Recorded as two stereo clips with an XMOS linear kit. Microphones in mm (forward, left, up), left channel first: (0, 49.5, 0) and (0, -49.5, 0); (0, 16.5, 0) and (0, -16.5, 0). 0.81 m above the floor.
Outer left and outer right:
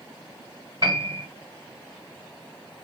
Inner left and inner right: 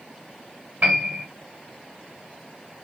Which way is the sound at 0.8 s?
40° right (ahead or behind).